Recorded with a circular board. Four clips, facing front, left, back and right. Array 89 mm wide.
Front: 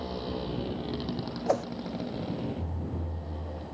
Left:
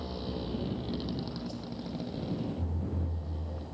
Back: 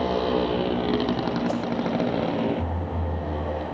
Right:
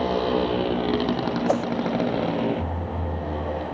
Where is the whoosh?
70° right.